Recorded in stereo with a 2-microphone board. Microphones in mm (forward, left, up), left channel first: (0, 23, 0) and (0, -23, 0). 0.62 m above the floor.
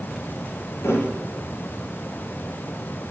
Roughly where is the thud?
Left.